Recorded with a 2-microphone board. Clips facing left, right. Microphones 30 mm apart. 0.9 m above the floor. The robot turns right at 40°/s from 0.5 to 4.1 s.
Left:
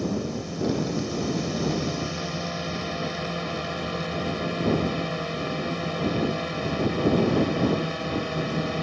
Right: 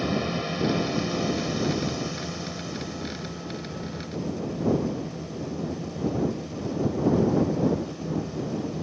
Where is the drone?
50° right; by 8.8 s 95° left.